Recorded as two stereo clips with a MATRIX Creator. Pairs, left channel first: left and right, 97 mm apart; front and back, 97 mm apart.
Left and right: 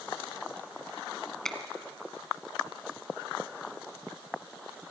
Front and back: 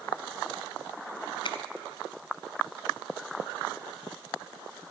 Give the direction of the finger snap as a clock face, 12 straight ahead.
12 o'clock.